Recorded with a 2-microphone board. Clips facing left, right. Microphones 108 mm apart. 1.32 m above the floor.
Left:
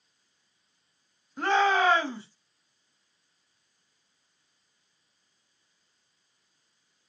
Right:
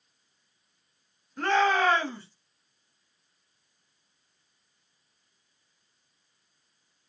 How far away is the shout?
About 2 m.